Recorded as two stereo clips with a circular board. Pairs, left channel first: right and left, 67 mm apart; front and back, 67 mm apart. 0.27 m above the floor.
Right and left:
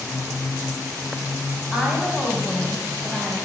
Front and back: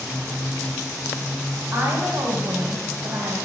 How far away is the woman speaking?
About 1.4 m.